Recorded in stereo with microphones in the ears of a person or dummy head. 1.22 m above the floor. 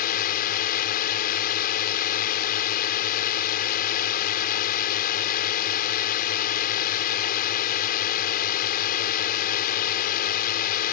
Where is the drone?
45° left (ahead or behind).